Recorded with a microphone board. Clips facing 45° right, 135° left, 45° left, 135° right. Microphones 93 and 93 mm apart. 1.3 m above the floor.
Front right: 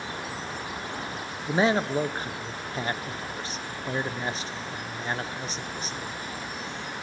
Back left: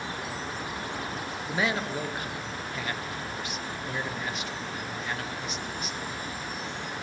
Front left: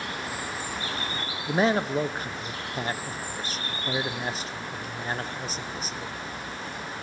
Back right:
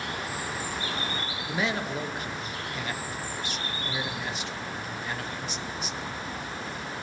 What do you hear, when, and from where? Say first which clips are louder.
1.5 s a man speaking: front right 6 dB, front left 7 dB; 5° left, 0.5 m